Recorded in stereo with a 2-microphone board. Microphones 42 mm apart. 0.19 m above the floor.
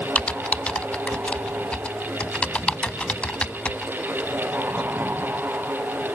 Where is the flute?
No flute in this recording.